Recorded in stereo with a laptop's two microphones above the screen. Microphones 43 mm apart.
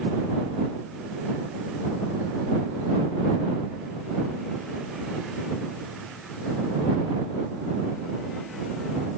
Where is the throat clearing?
I don't hear throat clearing.